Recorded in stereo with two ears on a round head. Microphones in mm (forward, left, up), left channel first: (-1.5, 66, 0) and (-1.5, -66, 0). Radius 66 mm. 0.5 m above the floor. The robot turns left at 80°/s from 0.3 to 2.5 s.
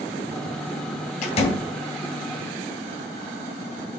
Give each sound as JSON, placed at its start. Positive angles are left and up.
{"t": 1.2, "sound": "a door slam", "side_deg": 60, "distance_m": 2.5}